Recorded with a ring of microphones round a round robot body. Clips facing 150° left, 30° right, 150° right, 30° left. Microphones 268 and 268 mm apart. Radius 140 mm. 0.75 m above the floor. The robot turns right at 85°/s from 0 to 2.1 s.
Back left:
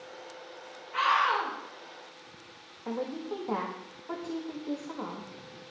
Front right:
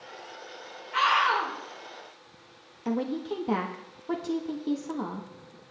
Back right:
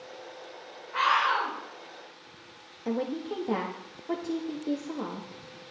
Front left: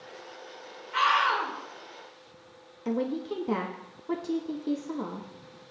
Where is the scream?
10° right, 3 m; by 1.5 s 40° left, 3 m.